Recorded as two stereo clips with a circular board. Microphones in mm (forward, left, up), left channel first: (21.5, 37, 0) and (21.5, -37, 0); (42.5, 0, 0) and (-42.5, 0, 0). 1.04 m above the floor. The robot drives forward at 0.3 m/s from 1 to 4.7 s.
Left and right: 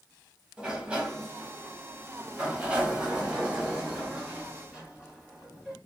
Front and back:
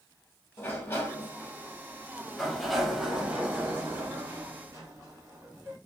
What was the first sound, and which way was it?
A sliding door, 25° right.